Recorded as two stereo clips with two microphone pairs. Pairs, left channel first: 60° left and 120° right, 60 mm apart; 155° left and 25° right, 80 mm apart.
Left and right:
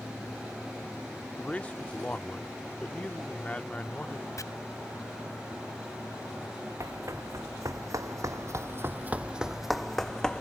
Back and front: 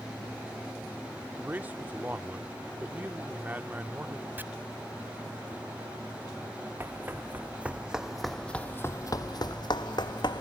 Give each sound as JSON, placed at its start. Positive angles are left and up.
{"t": 1.4, "sound": "a man speaking", "azimuth_deg": 25}
{"t": 4.4, "sound": "chopping", "azimuth_deg": 40}
{"t": 6.8, "sound": "running footsteps", "azimuth_deg": -90}